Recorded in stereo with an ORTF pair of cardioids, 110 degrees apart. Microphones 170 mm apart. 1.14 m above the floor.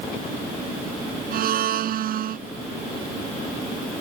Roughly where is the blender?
Ahead right.